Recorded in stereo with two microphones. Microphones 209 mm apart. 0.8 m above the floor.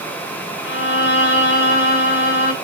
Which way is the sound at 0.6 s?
75° left (ahead or behind).